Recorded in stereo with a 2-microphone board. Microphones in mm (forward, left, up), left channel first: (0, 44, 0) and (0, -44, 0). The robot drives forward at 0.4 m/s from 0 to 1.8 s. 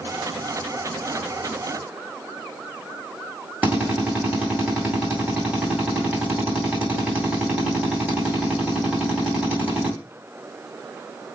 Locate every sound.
3.6 s a drill: 20° right (ahead or behind), 3 m